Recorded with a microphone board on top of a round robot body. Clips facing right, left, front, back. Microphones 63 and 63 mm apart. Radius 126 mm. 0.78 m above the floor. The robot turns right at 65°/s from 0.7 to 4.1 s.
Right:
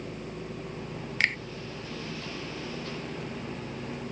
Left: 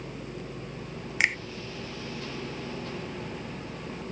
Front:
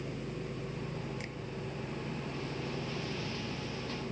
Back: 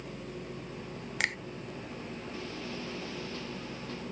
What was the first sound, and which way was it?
A finger snap, 165° left.